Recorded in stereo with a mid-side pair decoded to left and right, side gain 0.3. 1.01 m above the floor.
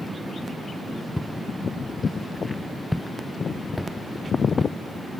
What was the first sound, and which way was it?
Footsteps, 5° left.